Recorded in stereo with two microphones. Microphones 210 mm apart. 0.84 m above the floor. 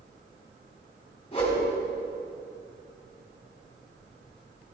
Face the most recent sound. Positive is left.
turn(degrees=30)  # may be behind; listen again after turning